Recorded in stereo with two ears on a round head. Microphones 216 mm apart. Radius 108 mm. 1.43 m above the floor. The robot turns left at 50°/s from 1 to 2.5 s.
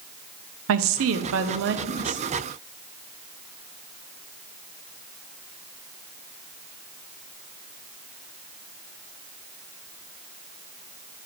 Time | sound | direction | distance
0.7 | a woman speaking | 85° right | 0.6 m